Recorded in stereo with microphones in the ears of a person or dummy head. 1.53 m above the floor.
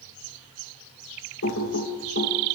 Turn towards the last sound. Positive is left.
turn(degrees=55)  # may be behind; listen again after turning